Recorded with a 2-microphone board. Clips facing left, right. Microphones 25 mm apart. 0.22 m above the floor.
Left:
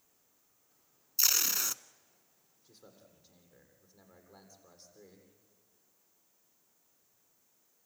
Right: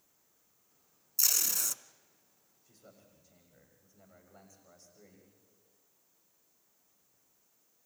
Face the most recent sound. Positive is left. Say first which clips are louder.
# left 1 dB
turn(degrees=60)  # may be behind; listen again after turning